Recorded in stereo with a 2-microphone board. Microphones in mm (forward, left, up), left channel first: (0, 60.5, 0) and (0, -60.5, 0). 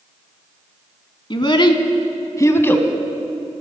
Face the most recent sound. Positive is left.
turn(degrees=15)  # may be behind; listen again after turning